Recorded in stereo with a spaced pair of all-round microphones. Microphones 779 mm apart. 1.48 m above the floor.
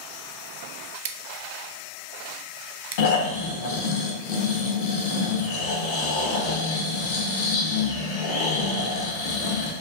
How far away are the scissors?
About 0.5 m.